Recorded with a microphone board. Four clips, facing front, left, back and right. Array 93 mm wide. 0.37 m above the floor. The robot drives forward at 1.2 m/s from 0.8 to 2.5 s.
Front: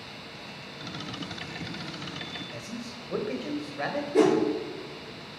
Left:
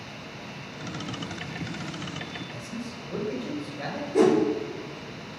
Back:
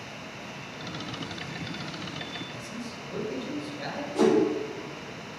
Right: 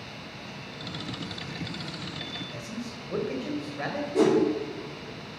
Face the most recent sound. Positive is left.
turn(degrees=20)